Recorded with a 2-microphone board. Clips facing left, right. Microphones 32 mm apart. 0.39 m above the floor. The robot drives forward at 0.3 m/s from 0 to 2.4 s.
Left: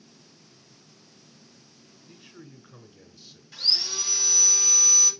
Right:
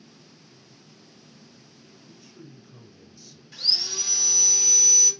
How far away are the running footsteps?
I don't hear running footsteps.